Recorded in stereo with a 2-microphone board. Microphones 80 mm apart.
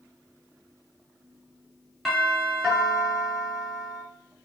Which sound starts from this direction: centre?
A doorbell, at 2.0 s.